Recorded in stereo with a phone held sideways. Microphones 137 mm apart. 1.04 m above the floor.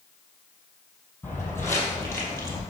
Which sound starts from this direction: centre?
Footsteps, at 1.2 s.